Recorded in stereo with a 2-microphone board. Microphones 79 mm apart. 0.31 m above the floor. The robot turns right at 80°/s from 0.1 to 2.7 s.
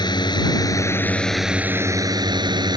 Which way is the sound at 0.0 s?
75° left.